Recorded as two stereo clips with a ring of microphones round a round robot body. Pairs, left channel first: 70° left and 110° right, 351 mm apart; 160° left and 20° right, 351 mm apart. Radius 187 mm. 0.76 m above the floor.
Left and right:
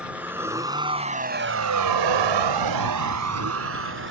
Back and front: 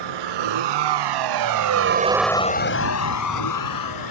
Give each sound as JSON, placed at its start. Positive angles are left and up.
{"t": 0.0, "sound": "a vehicle", "azimuth_deg": -25}